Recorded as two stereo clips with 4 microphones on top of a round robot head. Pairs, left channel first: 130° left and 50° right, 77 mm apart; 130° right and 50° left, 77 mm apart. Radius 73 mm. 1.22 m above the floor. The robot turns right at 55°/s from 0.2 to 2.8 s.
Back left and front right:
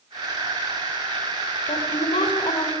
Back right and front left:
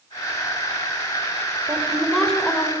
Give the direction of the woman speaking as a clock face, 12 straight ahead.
8 o'clock.